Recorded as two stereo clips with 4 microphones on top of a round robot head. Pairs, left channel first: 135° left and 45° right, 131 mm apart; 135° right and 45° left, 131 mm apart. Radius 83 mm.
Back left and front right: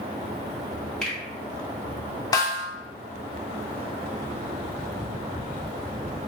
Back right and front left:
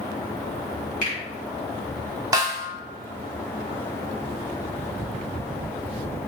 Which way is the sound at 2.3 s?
90° left.